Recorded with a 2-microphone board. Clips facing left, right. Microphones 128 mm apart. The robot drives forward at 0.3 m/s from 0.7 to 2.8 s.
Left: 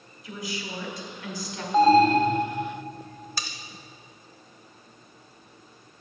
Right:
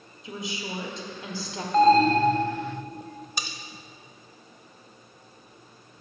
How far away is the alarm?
About 0.6 m.